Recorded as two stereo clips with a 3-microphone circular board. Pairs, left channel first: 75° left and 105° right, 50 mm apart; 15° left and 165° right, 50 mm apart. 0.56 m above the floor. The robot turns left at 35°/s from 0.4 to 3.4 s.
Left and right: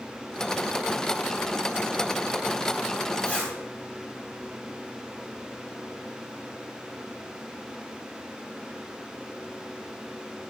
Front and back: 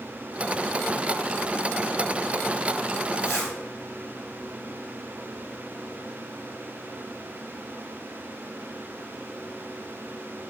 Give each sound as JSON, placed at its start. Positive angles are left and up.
{"t": 3.2, "sound": "a zipper", "azimuth_deg": 20, "distance_m": 1.2}